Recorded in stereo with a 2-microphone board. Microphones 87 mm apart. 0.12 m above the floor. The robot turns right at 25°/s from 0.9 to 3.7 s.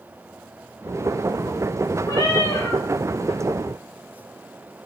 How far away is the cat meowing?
About 4.5 m.